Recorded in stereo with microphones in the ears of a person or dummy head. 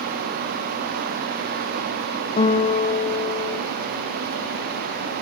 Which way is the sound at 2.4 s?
30° left (ahead or behind).